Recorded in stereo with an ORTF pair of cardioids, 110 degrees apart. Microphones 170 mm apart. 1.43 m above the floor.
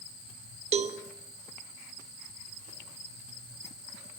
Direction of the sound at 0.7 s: 40° right.